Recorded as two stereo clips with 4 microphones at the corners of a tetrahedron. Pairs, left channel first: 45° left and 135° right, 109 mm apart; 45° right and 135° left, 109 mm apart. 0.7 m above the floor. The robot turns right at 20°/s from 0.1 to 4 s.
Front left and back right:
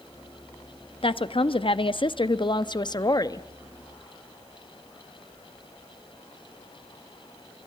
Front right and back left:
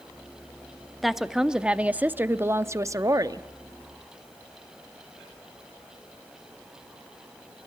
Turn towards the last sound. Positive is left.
turn(degrees=105)